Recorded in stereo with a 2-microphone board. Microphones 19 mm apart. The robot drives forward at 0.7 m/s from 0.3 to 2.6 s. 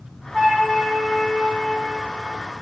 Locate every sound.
0.3 s a flute: 15° right (ahead or behind), 2 m; by 1.8 s 10° right (ahead or behind), 3 m